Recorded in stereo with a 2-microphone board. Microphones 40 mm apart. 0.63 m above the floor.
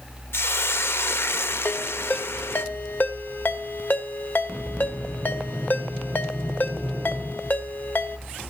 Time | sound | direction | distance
0.3 | a hiss | 75° left (ahead or behind) | 0.8 m
1.6 | a ringtone | 50° left (ahead or behind) | 1.7 m